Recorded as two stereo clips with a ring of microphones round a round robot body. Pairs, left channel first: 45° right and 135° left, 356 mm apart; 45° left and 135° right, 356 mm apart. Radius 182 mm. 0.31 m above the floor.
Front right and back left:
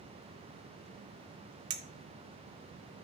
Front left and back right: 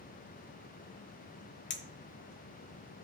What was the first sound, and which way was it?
A clink, 95° left.